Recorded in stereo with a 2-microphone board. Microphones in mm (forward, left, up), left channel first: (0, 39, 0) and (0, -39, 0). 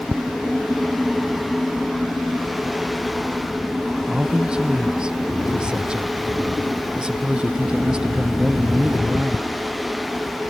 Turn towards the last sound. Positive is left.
turn(degrees=-10)  # may be behind; listen again after turning